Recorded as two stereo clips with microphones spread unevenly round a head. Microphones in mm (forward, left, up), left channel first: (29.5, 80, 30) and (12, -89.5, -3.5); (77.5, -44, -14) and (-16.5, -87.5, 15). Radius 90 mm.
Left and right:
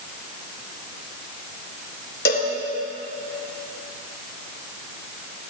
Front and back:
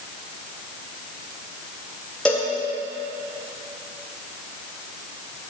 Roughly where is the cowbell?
Behind left.